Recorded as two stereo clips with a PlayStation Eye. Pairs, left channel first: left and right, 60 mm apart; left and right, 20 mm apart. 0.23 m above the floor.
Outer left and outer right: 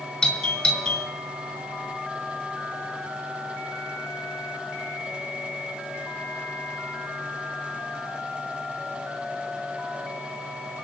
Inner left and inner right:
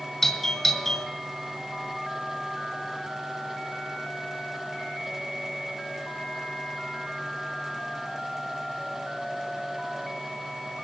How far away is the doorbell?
About 3 m.